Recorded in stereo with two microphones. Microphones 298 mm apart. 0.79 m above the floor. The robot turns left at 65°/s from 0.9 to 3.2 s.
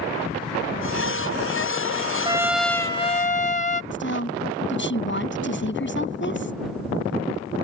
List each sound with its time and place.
2.2 s a trumpet: 160° right; by 3.8 s 140° left
3.9 s a woman speaking: 40° left (ahead or behind)